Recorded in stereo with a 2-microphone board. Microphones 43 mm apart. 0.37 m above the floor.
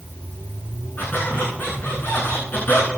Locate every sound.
1.0 s a squeak: 50° left (ahead or behind), 9 m